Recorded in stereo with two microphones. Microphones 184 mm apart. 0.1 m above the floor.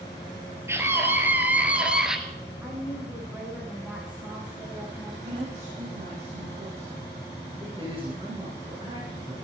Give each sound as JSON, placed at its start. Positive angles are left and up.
{"t": 0.7, "sound": "a scream", "side_deg": -15, "distance_m": 2.5}
{"t": 2.6, "sound": "a woman speaking", "side_deg": -5, "distance_m": 9.5}
{"t": 5.2, "sound": "a woman speaking", "side_deg": -60, "distance_m": 5.0}
{"t": 7.6, "sound": "a woman speaking", "side_deg": -30, "distance_m": 7.0}